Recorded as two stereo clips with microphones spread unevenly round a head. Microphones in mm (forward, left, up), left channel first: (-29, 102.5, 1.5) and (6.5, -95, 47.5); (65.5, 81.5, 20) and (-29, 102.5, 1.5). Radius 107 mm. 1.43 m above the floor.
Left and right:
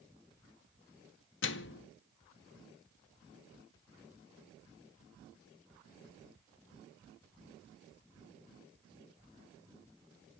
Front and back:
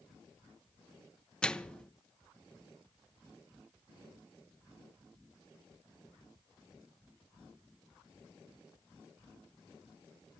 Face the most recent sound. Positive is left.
turn(degrees=65)